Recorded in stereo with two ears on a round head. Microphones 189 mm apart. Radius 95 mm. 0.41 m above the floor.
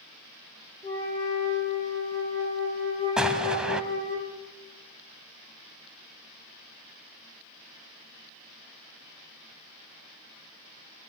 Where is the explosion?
5° right (ahead or behind), 0.9 m.